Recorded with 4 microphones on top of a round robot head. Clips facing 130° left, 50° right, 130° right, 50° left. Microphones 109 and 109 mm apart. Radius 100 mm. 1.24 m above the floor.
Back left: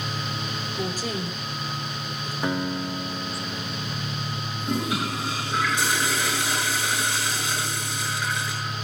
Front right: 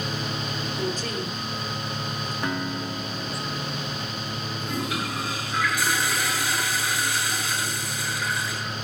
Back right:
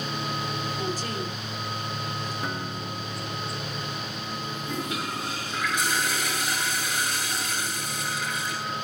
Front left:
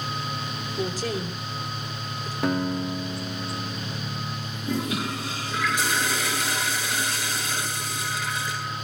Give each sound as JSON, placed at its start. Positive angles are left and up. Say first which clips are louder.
{"t": 0.8, "sound": "a woman speaking", "louder": "back left 1 dB, front left 2 dB", "azimuth_deg": 50, "distance_m": 5.0}
{"t": 2.4, "sound": "a guitar", "louder": "back left 4 dB, front left 8 dB", "azimuth_deg": 50, "distance_m": 2.0}
{"t": 4.6, "sound": "a toilet flushing", "louder": "back left 4 dB, front left 6 dB", "azimuth_deg": 60, "distance_m": 9.0}